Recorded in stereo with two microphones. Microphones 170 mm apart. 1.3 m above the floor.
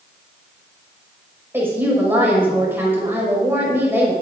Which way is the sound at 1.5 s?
10° right (ahead or behind).